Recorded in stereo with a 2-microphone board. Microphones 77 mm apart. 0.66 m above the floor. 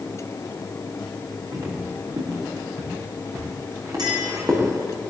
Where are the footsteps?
50° right (ahead or behind), 10 m; by 4.7 s 45° right (ahead or behind), 11 m.